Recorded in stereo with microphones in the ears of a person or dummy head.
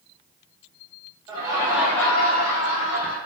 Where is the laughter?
25° right (ahead or behind), 1.3 m; by 3.2 s 55° left (ahead or behind), 1.2 m.